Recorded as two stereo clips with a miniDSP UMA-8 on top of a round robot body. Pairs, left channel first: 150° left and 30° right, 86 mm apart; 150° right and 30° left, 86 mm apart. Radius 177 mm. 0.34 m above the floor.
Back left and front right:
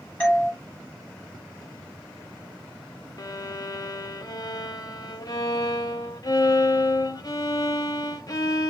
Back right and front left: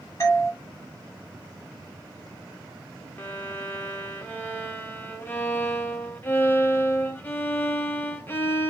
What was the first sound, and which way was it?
A doorbell, 150° right.